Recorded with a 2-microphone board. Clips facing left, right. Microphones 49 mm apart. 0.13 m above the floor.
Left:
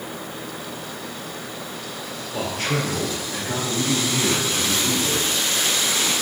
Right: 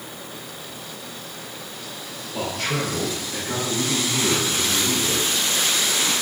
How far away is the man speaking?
About 2.5 m.